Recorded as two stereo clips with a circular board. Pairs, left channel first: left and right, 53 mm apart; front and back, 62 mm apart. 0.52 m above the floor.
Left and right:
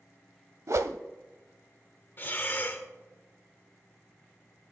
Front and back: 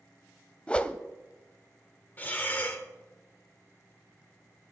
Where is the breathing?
55° left, 1.5 m.